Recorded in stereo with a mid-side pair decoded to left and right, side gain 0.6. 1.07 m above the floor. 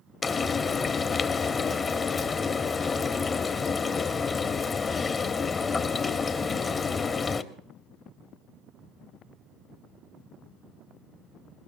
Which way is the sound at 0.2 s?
30° left.